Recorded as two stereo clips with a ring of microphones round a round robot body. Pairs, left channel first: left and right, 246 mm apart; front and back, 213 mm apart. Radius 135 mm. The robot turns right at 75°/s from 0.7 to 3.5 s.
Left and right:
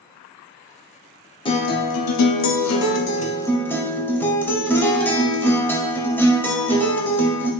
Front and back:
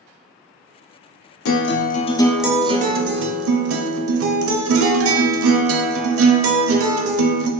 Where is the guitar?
20° left, 0.6 m; by 7.5 s 170° left, 0.6 m.